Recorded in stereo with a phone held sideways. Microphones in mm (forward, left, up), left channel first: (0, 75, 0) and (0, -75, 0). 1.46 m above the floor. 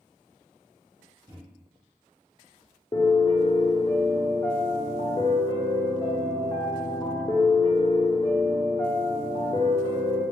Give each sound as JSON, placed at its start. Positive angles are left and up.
{"t": 1.3, "sound": "a microwave", "side_deg": -30, "distance_m": 1.0}
{"t": 2.9, "sound": "a piano", "side_deg": 30, "distance_m": 0.7}